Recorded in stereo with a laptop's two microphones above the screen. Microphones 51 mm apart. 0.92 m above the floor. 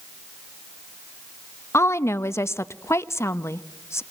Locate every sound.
1.7 s a woman speaking: 60° left (ahead or behind), 0.8 m